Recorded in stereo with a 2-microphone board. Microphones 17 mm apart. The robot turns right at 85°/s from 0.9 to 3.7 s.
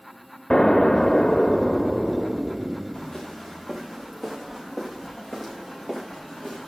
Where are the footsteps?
75° left (ahead or behind), 5.5 m; by 6.7 s 35° left (ahead or behind), 5 m.